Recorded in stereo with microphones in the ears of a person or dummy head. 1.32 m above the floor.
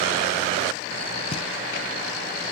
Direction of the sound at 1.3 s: 35° left (ahead or behind).